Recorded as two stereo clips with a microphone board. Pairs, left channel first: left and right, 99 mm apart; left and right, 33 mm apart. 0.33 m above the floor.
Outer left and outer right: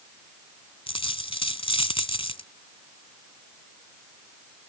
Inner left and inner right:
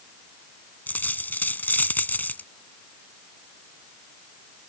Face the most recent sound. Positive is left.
turn(degrees=70)  # may be behind; listen again after turning